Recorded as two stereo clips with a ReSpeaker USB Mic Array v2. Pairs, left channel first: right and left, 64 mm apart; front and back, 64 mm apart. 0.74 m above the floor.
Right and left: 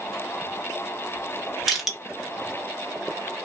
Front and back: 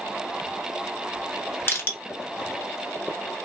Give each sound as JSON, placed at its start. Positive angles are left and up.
{"t": 1.7, "sound": "crushing", "azimuth_deg": 5, "distance_m": 1.0}